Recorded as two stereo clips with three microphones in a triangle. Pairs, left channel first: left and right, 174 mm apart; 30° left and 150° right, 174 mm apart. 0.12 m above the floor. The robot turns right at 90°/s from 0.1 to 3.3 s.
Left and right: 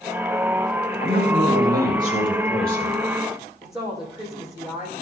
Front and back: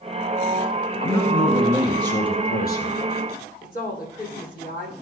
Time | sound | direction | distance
1.0 | a man speaking | 145° right | 4.5 m
3.6 | a woman speaking | 5° right | 6 m